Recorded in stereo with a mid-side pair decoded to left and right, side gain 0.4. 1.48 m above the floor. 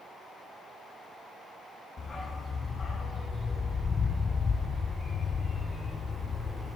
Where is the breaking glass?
I don't hear breaking glass.